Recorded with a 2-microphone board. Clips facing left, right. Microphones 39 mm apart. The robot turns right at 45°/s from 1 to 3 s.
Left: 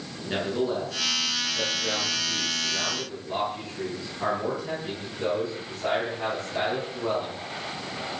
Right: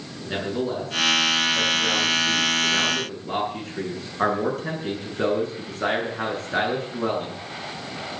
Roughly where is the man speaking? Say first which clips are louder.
Even; behind.